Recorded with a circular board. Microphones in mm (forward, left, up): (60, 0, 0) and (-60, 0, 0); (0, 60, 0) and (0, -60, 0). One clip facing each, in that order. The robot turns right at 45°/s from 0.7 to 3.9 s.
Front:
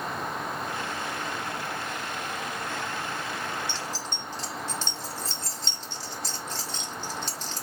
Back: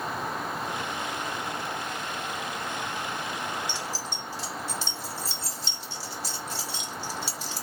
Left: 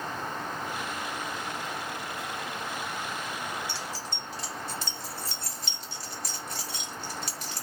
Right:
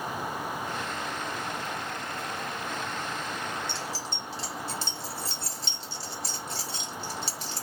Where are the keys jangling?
120° right, 0.6 m; by 7.6 s 110° right, 0.6 m.